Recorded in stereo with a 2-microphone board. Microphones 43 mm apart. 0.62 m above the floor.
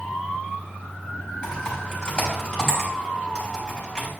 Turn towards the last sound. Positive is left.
turn(degrees=15)  # may be behind; listen again after turning